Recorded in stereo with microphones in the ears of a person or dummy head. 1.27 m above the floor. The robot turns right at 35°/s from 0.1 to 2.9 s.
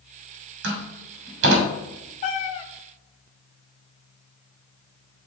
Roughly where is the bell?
I don't hear a bell.